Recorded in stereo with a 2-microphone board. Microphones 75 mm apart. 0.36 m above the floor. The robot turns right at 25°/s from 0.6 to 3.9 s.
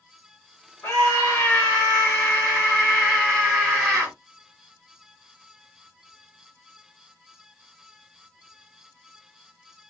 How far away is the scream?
About 1.7 m.